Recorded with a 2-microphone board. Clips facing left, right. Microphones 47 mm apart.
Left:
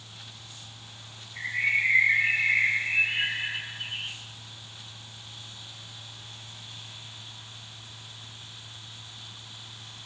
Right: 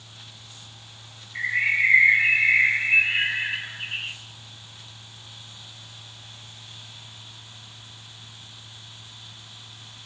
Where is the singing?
No singing in this recording.